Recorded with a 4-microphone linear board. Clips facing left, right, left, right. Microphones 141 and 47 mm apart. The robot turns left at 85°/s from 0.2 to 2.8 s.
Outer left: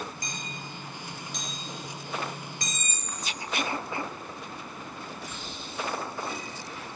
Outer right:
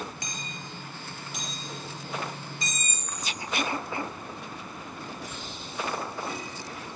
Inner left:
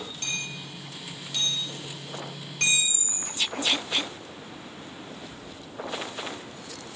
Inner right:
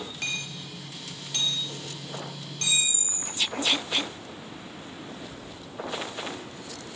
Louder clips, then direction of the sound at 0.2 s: Outer left 1 dB, inner right 1 dB; 80° right.